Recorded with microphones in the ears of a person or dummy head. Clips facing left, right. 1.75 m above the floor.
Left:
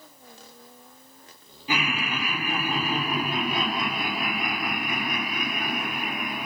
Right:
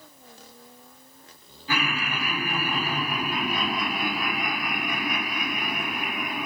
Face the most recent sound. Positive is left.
turn(degrees=30)  # may be behind; listen again after turning